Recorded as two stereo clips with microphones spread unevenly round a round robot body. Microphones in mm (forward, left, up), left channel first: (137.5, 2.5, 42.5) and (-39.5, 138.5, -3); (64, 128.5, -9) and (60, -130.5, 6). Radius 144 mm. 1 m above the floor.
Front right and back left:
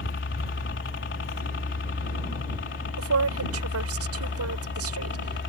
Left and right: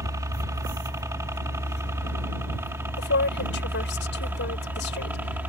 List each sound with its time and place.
0.0 s a helicopter: 15° right; by 5.5 s 10° right
3.0 s a woman speaking: 140° left